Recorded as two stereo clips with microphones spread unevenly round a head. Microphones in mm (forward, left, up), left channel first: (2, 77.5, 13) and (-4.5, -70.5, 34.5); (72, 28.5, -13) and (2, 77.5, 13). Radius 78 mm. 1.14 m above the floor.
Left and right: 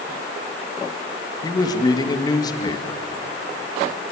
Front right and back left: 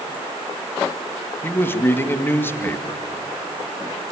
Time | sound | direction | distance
1.4 | a man speaking | 25° left | 1.9 m